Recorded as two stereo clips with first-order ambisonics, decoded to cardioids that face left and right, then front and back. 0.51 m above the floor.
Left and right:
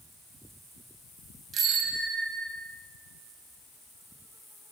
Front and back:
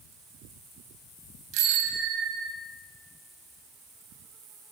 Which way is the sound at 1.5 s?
150° right.